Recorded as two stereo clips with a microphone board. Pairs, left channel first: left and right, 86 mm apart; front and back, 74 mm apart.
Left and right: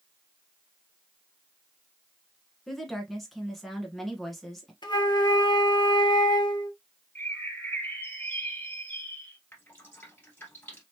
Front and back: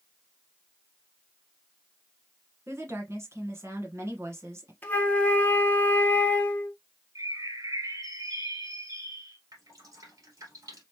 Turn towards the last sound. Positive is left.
turn(degrees=155)